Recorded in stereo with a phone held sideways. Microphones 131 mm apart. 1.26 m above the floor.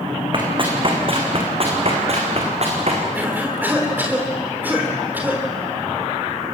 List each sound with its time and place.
0.3 s running footsteps: 40° right (ahead or behind), 5 m; by 3.0 s 55° right (ahead or behind), 5.5 m
3.1 s a cough: 15° right (ahead or behind), 3.5 m